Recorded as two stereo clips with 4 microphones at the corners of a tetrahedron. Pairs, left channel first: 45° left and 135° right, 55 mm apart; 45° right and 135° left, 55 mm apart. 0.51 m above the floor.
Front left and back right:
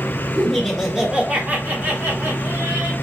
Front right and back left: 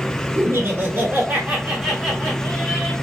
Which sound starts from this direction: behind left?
Laughter, at 0.3 s.